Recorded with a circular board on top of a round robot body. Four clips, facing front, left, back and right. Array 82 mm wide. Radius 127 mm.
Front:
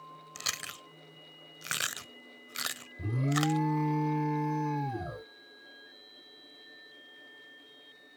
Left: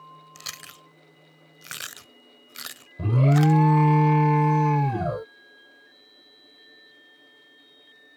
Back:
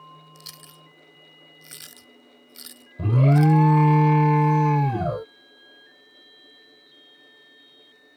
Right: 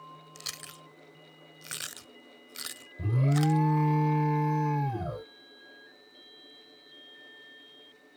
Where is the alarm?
145° left.